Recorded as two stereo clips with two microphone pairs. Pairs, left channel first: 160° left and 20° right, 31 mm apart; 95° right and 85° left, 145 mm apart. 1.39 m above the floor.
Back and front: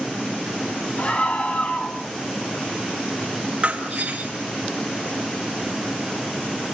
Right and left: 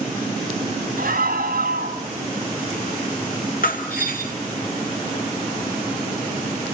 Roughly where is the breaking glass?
Right.